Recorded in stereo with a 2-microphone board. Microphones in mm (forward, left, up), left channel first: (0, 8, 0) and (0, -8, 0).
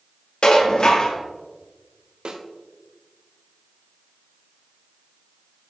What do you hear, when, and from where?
0.4 s dishes clattering: 55° left (ahead or behind), 1.0 m
2.2 s a snare drum: 60° right (ahead or behind), 0.7 m